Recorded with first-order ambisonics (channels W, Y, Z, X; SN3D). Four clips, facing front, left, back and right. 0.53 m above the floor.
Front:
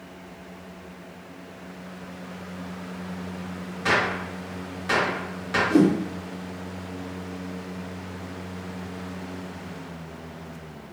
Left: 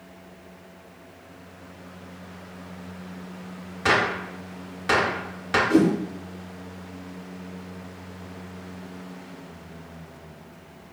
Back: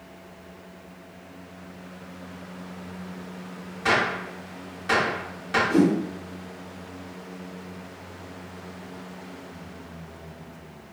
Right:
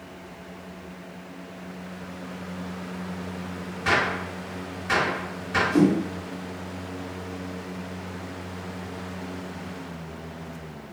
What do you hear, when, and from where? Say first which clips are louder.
3.9 s a gunshot: left 2 dB, even; 90° left, 0.9 m
5.7 s a whoosh: left 1 dB, front 2 dB; 85° left, 0.9 m